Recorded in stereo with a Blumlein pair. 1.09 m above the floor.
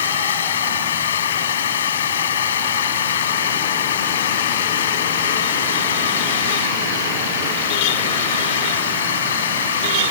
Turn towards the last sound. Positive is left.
turn(degrees=65)